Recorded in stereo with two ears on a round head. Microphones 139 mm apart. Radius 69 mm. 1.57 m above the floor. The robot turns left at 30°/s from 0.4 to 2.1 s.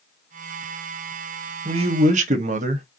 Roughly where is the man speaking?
Right.